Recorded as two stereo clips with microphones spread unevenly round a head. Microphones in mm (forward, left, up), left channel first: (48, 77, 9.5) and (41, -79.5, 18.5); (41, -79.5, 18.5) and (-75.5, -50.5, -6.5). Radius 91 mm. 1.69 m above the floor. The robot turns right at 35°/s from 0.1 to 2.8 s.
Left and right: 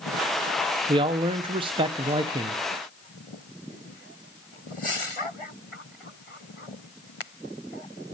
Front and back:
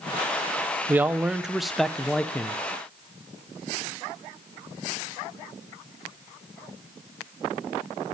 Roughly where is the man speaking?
Behind right.